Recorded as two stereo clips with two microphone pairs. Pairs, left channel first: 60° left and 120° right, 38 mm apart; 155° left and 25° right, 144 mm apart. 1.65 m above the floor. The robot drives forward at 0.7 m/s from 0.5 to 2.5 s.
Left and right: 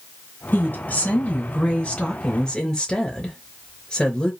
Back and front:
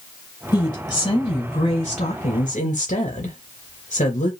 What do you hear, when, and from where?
0.5 s a woman speaking: 95° left, 1.9 m; by 4.3 s 130° left, 2.5 m